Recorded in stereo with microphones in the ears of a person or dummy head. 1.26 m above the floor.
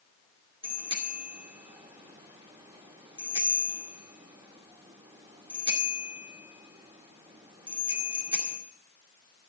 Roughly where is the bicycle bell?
Right.